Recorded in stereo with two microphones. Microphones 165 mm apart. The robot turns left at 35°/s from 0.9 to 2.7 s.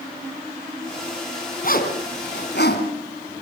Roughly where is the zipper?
Left.